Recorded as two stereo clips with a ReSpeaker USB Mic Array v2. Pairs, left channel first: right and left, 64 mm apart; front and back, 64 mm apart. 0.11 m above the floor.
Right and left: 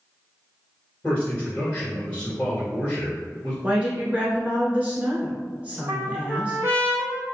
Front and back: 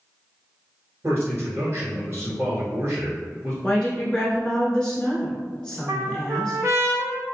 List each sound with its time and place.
1.0 s a man speaking: 150° right, 1.6 m
3.6 s a woman speaking: 60° left, 1.1 m
5.9 s a trumpet: 140° left, 0.8 m